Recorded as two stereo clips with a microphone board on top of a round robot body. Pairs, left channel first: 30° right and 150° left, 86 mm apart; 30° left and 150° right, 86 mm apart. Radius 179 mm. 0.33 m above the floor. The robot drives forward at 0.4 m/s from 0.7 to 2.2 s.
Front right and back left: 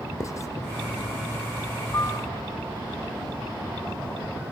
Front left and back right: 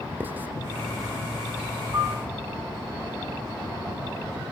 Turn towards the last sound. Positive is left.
turn(degrees=-90)